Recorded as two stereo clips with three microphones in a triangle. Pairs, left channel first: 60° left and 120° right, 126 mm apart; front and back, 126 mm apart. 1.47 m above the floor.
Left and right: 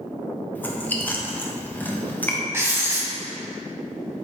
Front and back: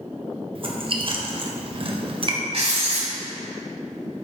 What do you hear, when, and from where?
0.6 s chewing: 135° left, 0.9 m
2.5 s writing: 175° left, 2 m